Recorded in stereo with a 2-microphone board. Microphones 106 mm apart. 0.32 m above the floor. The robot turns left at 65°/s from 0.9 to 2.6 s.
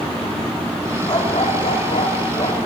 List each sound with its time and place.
1.1 s a dog barking: 140° left, 6.5 m; by 2.7 s 40° left, 6.5 m